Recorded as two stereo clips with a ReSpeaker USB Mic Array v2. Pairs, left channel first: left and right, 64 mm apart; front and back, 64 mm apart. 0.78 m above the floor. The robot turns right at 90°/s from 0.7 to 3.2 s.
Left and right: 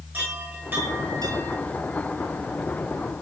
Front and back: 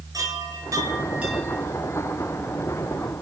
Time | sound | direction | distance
0.1 | a chime | 155° right | 9.5 m